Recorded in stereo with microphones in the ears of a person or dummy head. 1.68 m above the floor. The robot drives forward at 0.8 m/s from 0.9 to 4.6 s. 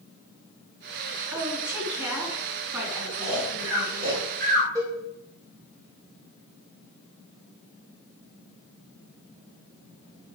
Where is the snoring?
60° right (ahead or behind), 6 m; by 4.7 s 50° right (ahead or behind), 7 m.